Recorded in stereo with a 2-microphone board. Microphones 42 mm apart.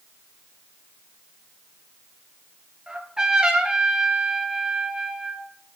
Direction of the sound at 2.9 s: 20° right (ahead or behind).